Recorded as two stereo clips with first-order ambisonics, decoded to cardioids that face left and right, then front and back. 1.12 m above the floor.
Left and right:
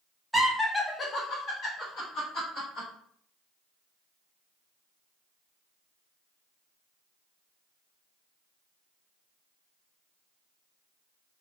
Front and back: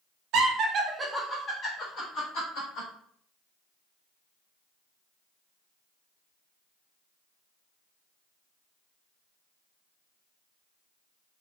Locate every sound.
0.3 s laughter: straight behind, 0.7 m; by 2.9 s 35° left, 1.4 m